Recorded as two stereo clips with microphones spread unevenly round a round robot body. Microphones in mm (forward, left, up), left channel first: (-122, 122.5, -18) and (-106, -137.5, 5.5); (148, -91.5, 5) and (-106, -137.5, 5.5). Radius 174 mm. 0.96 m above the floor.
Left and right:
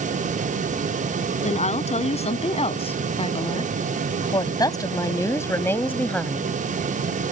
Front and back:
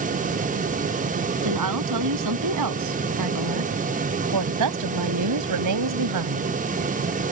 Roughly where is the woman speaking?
Behind.